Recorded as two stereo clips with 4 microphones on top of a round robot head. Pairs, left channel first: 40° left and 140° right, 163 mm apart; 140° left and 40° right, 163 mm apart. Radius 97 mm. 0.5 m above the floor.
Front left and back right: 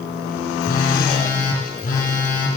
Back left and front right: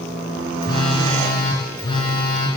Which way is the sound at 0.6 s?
75° left.